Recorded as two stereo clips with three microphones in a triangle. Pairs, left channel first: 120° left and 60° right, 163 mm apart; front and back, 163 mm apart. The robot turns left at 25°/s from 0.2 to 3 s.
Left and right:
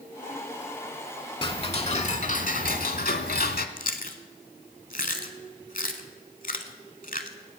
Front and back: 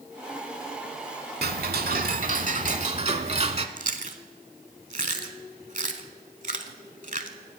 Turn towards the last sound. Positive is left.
turn(degrees=145)